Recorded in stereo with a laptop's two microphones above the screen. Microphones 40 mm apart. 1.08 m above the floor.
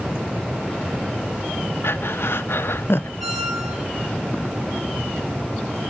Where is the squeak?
Centre (ahead or behind), 4 m.